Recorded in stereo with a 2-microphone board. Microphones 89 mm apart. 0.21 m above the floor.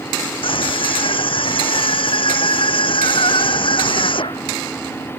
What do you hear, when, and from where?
0.4 s a scream: 75° left (ahead or behind); by 4.6 s 70° left (ahead or behind)